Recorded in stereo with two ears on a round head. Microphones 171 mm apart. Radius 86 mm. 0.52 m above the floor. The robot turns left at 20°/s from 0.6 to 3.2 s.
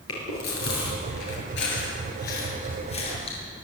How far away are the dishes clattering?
I don't hear dishes clattering.